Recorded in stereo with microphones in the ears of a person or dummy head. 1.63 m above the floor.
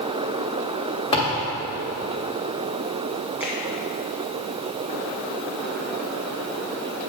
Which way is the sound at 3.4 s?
5° right (ahead or behind).